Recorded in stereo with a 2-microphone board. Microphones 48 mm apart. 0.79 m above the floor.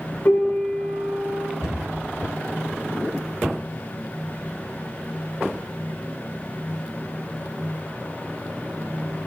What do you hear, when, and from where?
0.2 s a piano: 45° left (ahead or behind), 0.8 m
1.6 s a cupboard door: 85° left, 1.5 m